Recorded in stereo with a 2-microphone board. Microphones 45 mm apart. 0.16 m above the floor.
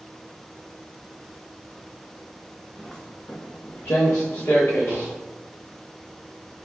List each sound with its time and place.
2.8 s footsteps: 20° left (ahead or behind), 1.0 m; by 5.2 s 80° left, 1.7 m